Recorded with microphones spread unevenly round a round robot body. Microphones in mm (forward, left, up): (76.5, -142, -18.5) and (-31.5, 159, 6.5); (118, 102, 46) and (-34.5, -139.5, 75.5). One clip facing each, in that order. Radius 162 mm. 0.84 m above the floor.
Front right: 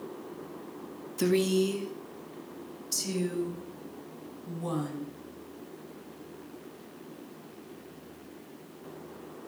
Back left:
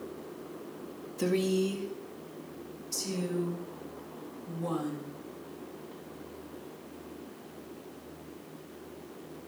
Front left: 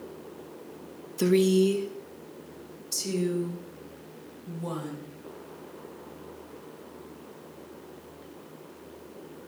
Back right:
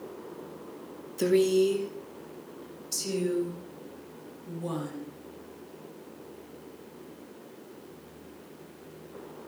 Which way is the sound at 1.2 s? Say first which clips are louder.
Front right 3 dB, front left 1 dB; 20° right.